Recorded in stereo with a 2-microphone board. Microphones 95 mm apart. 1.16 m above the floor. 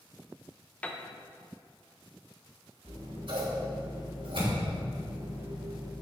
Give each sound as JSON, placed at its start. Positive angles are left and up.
{"t": 0.8, "sound": "a piano", "side_deg": 15, "distance_m": 0.6}
{"t": 2.9, "sound": "scissors", "side_deg": -65, "distance_m": 3.0}